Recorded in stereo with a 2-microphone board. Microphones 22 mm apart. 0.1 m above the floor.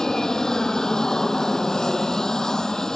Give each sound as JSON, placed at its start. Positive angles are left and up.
{"t": 0.0, "sound": "an aircraft", "side_deg": 25}